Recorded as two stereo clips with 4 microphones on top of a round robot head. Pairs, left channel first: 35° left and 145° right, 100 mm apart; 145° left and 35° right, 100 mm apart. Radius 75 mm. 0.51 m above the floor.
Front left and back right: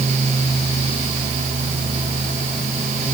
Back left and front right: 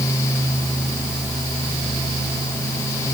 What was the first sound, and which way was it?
Only background noise.